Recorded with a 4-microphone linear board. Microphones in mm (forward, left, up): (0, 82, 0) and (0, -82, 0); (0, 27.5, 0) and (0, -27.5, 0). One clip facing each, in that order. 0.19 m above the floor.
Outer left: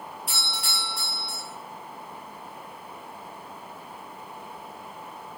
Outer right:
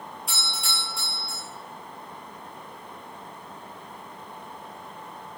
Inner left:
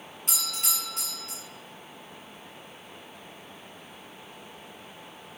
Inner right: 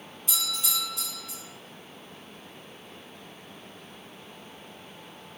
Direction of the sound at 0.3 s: 70° left (ahead or behind).